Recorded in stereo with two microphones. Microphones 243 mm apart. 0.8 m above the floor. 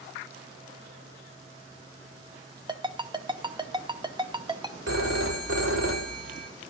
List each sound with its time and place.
2.7 s a ringtone: 20° right (ahead or behind), 0.8 m
4.9 s a phone ringing: 70° right (ahead or behind), 1.6 m